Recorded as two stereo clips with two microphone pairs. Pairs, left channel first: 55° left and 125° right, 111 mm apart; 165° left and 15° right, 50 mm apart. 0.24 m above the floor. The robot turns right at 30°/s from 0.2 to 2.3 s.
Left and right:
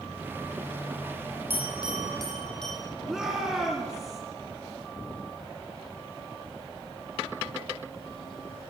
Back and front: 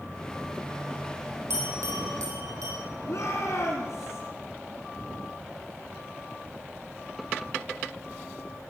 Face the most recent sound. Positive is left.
turn(degrees=160)